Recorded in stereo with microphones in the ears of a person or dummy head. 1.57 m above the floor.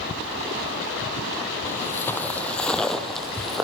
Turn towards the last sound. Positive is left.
turn(degrees=-5)  # may be behind; listen again after turning